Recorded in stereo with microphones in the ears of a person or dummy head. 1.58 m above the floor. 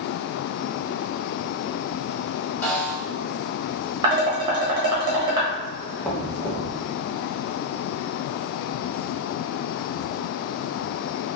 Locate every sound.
2.6 s a snare drum: 10° left (ahead or behind), 1.3 m
4.0 s dishes clattering: 25° right (ahead or behind), 1.1 m
6.0 s knocking: 10° left (ahead or behind), 0.9 m